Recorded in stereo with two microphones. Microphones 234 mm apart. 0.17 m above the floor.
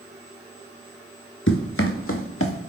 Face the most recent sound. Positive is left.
turn(degrees=70)  # may be behind; listen again after turning